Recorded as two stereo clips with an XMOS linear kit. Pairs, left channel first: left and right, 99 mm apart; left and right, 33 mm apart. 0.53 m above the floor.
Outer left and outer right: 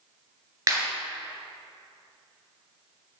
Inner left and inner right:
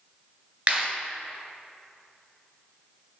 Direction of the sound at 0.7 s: 30° right (ahead or behind).